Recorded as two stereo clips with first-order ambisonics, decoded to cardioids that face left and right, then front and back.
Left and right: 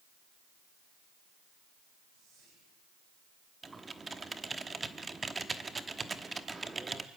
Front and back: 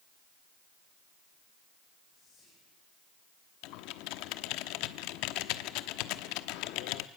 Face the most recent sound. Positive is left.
turn(degrees=-15)